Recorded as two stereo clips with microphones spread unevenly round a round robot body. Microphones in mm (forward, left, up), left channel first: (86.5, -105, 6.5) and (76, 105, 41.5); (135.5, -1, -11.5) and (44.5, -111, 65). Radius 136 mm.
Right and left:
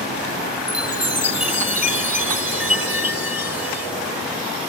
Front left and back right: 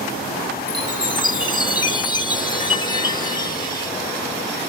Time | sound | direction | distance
0.7 | a chime | 10° left | ?